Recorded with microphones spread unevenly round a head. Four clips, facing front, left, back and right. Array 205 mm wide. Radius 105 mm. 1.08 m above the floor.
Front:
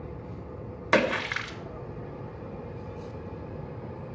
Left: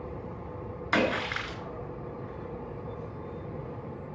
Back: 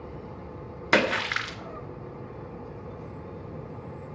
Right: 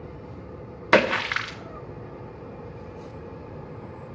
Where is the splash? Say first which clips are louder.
Right 7 dB, even; 95° right, 1.3 m.